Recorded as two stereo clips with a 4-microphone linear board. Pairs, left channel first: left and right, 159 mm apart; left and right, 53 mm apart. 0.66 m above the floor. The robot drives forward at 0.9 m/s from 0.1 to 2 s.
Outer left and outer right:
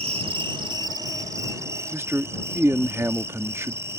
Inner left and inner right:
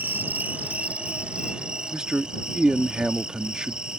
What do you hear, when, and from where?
0.0 s an insect: 40° right (ahead or behind); by 4.0 s 15° right (ahead or behind)
1.9 s a man speaking: 15° right (ahead or behind)